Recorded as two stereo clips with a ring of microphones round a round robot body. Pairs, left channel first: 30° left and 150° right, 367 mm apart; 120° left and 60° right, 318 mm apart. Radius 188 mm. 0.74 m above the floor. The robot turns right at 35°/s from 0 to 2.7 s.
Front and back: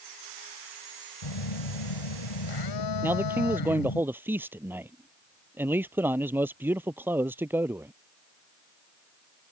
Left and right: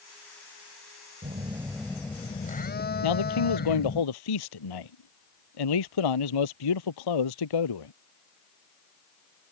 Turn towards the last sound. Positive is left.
turn(degrees=125)